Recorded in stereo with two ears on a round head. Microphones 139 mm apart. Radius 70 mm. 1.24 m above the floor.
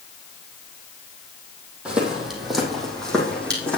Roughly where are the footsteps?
Centre.